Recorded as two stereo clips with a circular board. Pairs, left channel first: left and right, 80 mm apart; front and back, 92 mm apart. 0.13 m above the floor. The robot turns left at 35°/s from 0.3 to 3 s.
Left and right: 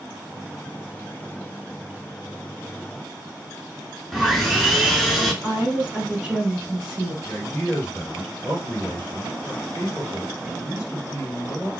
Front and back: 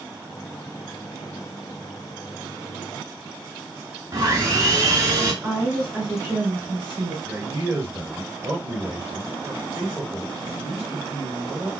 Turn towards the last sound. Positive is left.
turn(degrees=125)